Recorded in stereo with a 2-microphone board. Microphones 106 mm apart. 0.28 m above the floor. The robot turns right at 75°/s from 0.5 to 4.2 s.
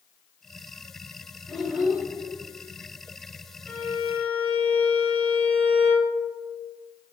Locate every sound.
1.5 s a child speaking: centre (ahead or behind), 0.6 m; by 2.0 s 15° right (ahead or behind), 0.6 m
3.7 s a violin: 20° left (ahead or behind), 0.8 m; by 6.1 s 15° left (ahead or behind), 0.8 m